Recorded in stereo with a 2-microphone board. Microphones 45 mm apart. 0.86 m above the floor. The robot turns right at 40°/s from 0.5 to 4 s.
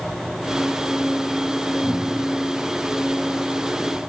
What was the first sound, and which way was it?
A cupboard door, 15° left (ahead or behind).